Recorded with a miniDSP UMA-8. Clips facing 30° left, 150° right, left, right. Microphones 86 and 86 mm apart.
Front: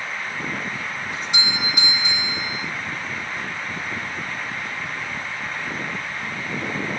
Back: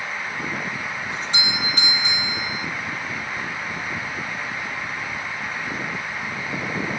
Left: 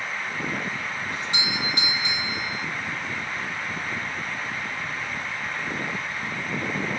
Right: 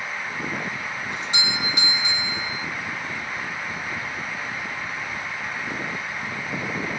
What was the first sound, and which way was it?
A doorbell, 40° right.